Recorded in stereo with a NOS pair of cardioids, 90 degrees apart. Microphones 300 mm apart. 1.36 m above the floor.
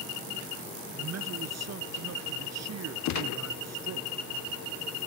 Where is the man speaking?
60° right.